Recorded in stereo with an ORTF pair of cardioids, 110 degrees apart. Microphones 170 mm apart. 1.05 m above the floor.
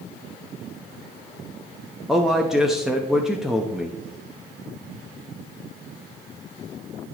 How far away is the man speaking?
About 1.0 m.